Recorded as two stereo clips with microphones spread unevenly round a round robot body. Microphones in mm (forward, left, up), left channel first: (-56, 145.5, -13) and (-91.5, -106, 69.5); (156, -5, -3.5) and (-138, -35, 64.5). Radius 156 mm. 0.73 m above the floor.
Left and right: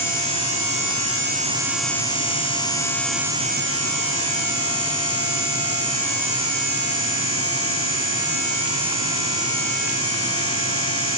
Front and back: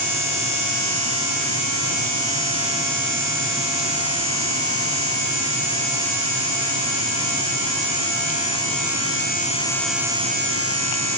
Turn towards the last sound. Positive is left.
No sound to turn to.